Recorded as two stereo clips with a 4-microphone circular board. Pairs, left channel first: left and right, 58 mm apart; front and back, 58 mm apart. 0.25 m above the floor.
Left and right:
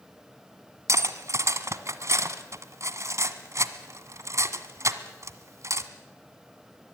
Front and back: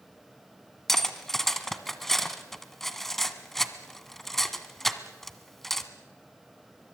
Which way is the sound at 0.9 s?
85° right.